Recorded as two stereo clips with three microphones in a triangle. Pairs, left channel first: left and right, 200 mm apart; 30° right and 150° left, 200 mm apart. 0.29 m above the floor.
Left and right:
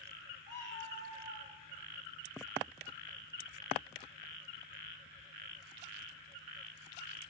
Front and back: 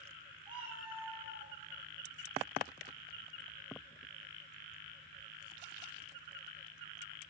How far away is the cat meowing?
About 4 m.